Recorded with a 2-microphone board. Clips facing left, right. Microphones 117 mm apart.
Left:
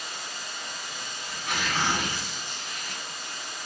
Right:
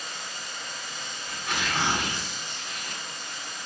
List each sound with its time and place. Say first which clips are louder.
0.0 s running water: even; 15° left (ahead or behind), 1.6 m
1.3 s tearing paper: even; 5° left (ahead or behind), 1.6 m